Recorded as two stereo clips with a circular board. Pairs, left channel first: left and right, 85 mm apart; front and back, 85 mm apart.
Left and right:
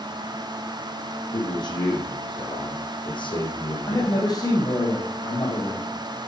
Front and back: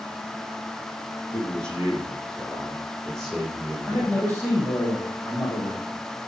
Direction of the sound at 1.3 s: 75° left.